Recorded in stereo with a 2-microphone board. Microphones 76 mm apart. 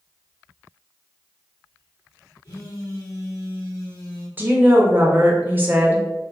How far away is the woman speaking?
About 0.6 m.